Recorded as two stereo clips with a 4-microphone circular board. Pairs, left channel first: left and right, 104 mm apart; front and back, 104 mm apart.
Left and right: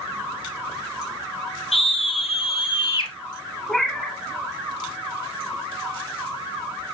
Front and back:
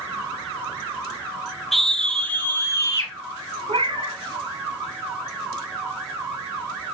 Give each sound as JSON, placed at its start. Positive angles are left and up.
{"t": 1.7, "sound": "a scream", "azimuth_deg": 90, "distance_m": 2.5}
{"t": 3.7, "sound": "a cat meowing", "azimuth_deg": 175, "distance_m": 1.3}